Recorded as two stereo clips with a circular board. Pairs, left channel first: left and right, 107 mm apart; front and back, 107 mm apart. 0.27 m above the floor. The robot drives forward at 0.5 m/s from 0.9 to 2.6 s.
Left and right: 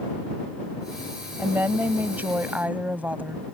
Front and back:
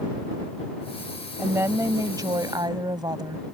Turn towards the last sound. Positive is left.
turn(degrees=-160)